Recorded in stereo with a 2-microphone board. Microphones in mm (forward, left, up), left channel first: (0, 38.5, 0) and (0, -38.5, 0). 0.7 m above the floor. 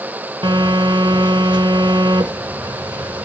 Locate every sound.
0.4 s a phone buzzing: 80° right, 0.9 m